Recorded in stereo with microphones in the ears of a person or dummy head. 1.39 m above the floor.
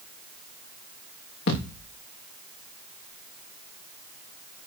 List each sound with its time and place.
1.5 s a thud: 70° left (ahead or behind), 5 m